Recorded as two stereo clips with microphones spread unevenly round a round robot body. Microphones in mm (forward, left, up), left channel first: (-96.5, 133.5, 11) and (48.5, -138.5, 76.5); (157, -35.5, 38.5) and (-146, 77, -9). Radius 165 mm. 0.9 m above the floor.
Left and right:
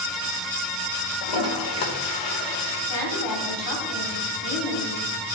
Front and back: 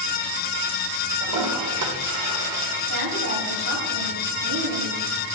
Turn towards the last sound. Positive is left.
turn(degrees=125)